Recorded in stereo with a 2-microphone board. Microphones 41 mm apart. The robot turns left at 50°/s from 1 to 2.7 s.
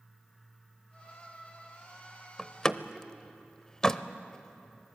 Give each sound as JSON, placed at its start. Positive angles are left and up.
{"t": 2.4, "sound": "a door slam", "side_deg": 15, "distance_m": 0.6}